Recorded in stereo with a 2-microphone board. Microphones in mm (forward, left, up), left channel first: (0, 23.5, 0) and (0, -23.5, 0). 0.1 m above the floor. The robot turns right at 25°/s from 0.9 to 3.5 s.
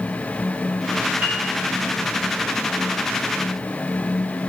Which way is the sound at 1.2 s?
45° right (ahead or behind).